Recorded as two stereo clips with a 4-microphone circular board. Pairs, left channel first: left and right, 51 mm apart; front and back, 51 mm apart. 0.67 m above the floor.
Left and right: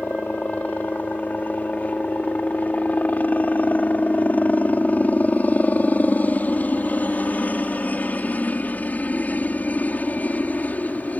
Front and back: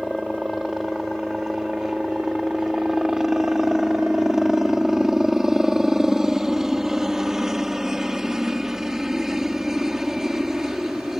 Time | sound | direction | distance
0.0 | a helicopter | 105° left | ?